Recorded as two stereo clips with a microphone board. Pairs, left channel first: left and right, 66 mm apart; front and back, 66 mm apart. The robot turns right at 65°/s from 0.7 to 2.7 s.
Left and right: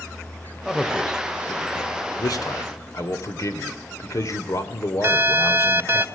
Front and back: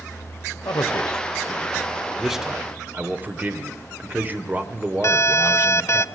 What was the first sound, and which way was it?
A man speaking, 5° right.